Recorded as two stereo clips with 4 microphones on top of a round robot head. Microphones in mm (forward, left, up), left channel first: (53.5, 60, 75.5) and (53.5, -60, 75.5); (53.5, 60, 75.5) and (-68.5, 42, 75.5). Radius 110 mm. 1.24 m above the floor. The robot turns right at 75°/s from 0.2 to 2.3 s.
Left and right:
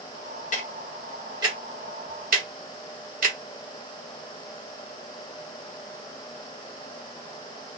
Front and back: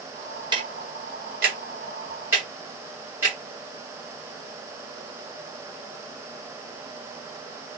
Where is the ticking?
135° left, 0.9 m; by 3.4 s 95° right, 0.9 m.